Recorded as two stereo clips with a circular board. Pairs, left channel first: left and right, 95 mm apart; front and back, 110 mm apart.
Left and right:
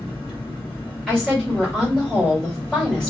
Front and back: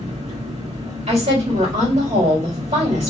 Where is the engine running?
170° left, 3.5 m.